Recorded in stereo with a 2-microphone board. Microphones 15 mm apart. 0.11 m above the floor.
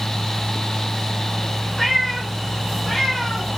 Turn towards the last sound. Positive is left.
turn(degrees=30)  # may be behind; listen again after turning